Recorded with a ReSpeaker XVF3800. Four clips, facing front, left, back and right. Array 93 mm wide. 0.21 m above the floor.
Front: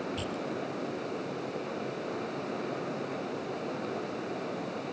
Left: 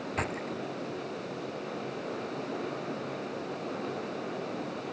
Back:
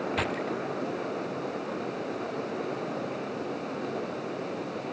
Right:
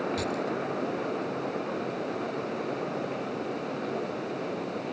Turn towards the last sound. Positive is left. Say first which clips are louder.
# right 4 dB, back 5 dB
turn(degrees=150)